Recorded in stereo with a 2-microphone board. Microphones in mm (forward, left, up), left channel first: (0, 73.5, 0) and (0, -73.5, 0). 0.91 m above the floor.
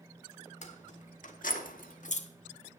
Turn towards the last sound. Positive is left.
turn(degrees=50)  # may be behind; listen again after turning